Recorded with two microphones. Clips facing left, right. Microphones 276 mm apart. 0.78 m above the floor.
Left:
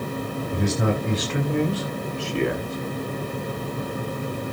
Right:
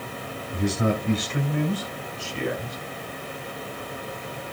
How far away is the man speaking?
About 3 m.